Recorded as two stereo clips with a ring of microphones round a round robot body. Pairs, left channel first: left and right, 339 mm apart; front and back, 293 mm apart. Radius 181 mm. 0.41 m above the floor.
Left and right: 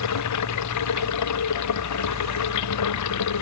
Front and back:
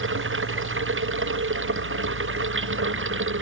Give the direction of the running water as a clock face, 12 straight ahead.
8 o'clock.